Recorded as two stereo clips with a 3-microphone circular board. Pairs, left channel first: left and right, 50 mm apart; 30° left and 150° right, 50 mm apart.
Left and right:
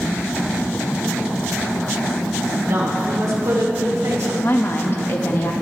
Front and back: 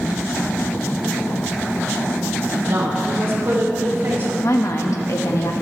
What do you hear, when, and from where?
2.5 s a woman speaking: 120° right, 3.5 m; by 4.3 s 105° right, 2 m
4.4 s a woman speaking: 45° left, 1.6 m